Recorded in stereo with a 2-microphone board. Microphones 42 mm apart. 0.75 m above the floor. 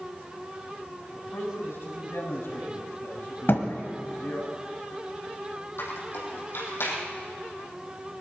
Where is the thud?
65° left (ahead or behind), 1.6 m.